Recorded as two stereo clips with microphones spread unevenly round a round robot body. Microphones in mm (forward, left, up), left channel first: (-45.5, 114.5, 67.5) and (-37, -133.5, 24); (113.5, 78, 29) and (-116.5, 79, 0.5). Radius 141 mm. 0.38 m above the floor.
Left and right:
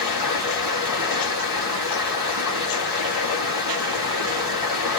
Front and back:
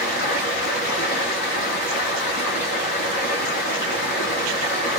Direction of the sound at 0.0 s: 5° right.